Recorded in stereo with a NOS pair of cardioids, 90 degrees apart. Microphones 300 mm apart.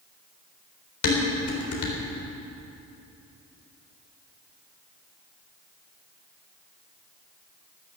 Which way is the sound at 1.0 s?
70° left.